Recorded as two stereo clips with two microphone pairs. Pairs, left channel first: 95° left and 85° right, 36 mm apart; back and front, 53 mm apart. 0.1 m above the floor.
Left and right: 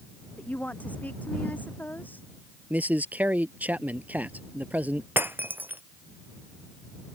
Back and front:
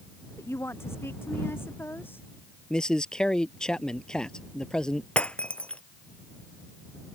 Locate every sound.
0.4 s a woman speaking: 145° left; by 2.3 s 130° left
2.7 s a man speaking: 105° right
5.2 s breaking glass: 110° right